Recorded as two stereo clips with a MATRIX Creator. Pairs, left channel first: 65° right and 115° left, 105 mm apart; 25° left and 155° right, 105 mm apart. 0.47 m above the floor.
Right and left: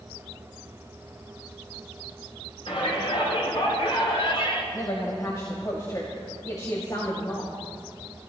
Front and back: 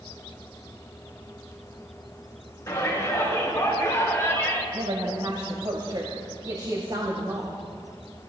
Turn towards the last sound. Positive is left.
turn(degrees=-120)